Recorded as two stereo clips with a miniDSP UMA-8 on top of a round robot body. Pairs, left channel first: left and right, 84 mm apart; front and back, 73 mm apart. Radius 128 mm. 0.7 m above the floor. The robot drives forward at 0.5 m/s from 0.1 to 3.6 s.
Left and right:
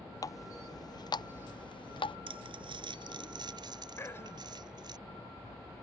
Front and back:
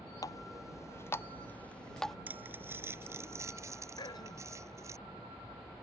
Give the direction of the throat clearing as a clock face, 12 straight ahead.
11 o'clock.